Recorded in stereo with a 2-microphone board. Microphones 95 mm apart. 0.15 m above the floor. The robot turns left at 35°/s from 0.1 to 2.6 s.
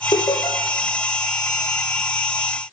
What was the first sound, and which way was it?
Laughter, 55° left (ahead or behind).